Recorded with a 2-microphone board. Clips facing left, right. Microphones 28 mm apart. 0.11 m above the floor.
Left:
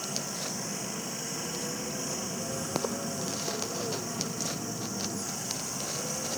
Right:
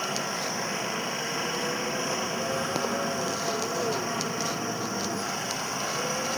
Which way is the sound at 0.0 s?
45° right (ahead or behind).